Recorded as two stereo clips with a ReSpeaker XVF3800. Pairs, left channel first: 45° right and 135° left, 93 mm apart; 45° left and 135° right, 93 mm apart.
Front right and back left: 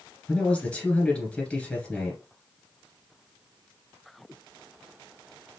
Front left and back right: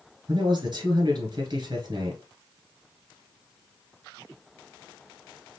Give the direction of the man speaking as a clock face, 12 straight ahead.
4 o'clock.